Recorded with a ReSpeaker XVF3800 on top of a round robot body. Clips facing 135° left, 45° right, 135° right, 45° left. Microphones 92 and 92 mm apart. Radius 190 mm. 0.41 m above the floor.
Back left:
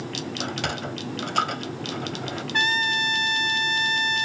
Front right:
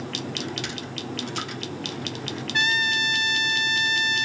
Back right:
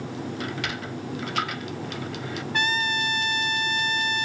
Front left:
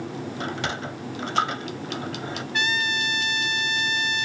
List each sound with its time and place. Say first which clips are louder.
0.4 s a sliding door: back left 3 dB, front left 2 dB; 105° left
2.5 s a trumpet: even, even; straight behind